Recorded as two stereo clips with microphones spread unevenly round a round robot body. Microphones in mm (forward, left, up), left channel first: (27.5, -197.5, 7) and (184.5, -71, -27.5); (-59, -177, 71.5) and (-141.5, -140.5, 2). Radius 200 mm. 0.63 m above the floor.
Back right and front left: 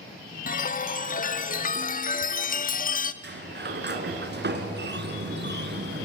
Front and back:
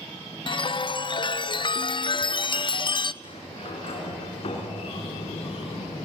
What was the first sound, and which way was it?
A chime, 95° right.